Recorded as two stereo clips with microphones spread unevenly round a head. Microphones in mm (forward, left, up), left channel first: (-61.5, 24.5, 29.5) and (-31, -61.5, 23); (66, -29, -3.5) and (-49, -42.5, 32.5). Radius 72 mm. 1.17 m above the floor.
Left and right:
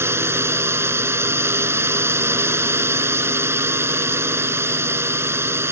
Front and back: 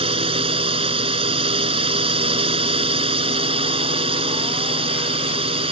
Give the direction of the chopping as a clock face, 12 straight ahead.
I don't hear chopping.